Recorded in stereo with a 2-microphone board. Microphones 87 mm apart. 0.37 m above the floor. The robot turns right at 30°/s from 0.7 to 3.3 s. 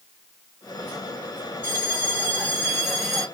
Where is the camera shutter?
I don't hear a camera shutter.